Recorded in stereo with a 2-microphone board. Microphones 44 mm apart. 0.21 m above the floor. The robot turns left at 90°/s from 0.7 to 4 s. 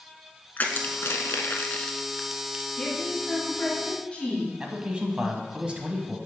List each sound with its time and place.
0.6 s crushing: 45° left (ahead or behind), 0.6 m; by 2.6 s 40° right (ahead or behind), 0.6 m
2.8 s a woman speaking: 155° left, 2.0 m; by 4.5 s 45° left, 2.0 m
4.6 s a man speaking: 25° right (ahead or behind), 1.0 m